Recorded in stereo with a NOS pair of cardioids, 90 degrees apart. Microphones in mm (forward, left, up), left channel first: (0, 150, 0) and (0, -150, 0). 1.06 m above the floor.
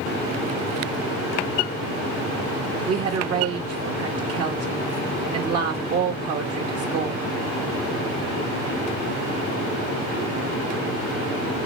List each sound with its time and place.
2.9 s a woman speaking: 55° right, 1.2 m